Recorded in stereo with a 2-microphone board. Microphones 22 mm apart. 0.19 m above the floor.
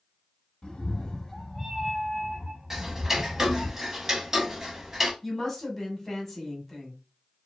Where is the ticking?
20° right (ahead or behind), 0.6 m.